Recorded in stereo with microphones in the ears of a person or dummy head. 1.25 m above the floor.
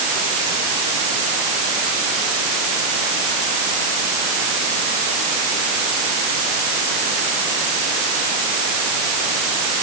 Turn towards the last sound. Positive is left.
No sound to turn to.